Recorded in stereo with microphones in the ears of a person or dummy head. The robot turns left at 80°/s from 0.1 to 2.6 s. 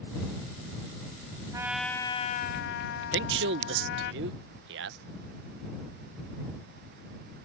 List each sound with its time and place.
1.5 s a trumpet: 160° right; by 4.1 s 115° left
3.1 s a man speaking: 60° right (ahead or behind)